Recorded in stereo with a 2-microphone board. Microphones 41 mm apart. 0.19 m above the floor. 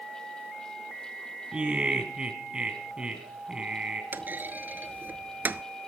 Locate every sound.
1.5 s laughter: 25° right (ahead or behind), 1.4 m
4.1 s a clunk: 55° right (ahead or behind), 0.5 m